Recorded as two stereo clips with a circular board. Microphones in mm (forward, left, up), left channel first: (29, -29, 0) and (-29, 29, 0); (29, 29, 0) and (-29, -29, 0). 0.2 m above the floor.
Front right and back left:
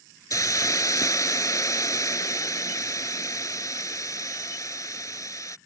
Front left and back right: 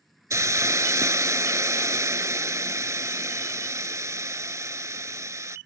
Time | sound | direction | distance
0.3 | a hiss | 85° right | ?